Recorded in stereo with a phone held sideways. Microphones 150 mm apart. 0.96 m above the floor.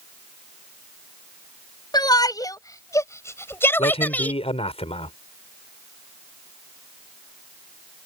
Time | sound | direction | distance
1.9 | a shout | 25° left (ahead or behind) | ?
3.8 | a man speaking | 40° left (ahead or behind) | ?